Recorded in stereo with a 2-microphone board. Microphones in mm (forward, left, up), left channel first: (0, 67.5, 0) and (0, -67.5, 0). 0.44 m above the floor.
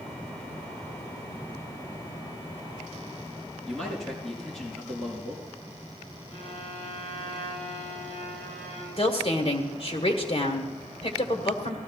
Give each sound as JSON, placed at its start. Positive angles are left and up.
{"t": 3.7, "sound": "a man speaking", "side_deg": 5, "distance_m": 5.0}
{"t": 6.3, "sound": "a violin", "side_deg": 45, "distance_m": 5.5}
{"t": 9.0, "sound": "a woman speaking", "side_deg": 45, "distance_m": 1.6}